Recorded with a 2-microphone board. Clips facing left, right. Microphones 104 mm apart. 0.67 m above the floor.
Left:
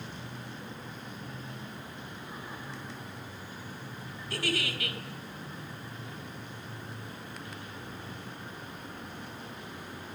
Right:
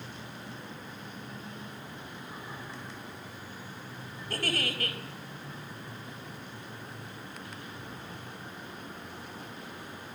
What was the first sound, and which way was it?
A giggle, 45° right (ahead or behind).